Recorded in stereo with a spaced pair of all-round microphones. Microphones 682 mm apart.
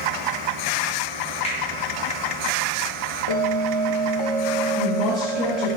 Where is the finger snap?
10° left (ahead or behind), 4 m.